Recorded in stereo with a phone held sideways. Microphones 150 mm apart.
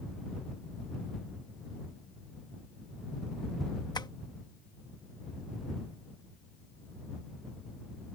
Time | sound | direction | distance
4.0 | tapping | 30° left (ahead or behind) | ?